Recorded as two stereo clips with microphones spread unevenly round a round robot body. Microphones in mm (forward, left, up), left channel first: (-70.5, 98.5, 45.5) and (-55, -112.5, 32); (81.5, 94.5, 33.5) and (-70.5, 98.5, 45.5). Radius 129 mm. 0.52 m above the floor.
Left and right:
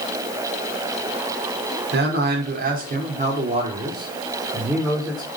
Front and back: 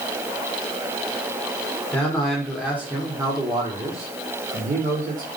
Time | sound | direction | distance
1.9 | a man speaking | 80° right | 2 m